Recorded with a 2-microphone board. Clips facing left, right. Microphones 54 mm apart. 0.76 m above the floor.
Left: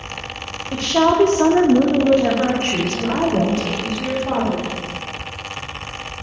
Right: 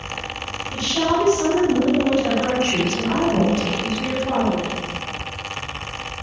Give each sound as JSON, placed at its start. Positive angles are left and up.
{"t": 0.7, "sound": "a woman speaking", "side_deg": 65, "distance_m": 1.3}